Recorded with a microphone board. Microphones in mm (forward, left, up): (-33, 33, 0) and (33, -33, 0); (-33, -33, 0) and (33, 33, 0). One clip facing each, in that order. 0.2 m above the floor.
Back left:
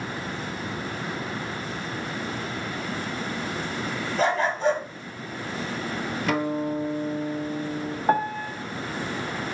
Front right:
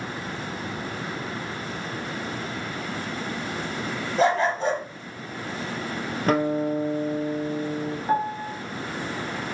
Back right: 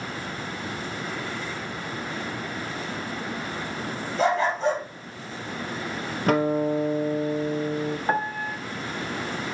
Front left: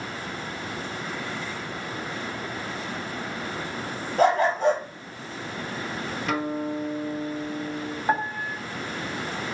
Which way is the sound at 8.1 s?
135° left.